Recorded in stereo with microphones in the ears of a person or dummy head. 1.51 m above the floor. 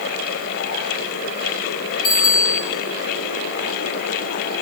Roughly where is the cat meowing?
I don't hear a cat meowing.